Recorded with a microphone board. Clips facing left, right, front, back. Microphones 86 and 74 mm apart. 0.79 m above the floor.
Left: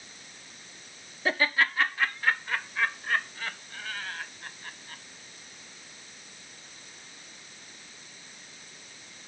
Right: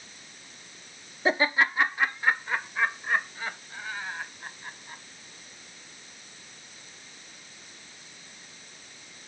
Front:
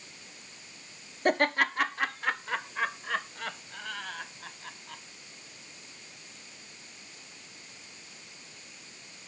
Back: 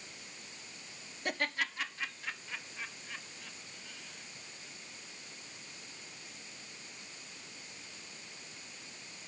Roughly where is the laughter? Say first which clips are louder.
Right 2 dB, front 10 dB; ahead right.